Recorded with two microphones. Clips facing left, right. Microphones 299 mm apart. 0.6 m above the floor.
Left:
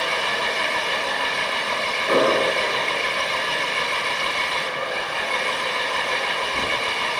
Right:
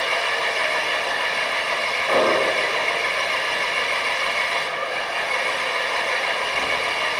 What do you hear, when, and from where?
0.0 s an engine running: 45° left (ahead or behind), 3.5 m
2.1 s an explosion: 35° left (ahead or behind), 10 m